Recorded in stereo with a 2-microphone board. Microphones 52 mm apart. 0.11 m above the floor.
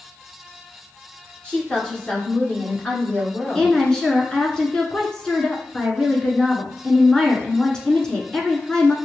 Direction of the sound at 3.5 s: 15° left (ahead or behind).